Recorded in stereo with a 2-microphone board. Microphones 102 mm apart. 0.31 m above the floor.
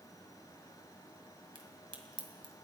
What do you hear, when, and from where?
1.6 s a crack: 55° right (ahead or behind), 1.8 m